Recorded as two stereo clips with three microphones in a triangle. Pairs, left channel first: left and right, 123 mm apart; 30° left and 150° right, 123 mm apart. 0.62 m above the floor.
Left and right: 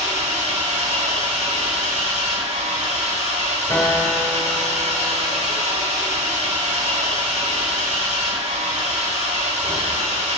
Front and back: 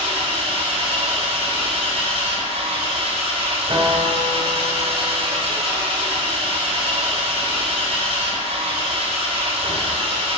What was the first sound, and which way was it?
An engine running, 115° right.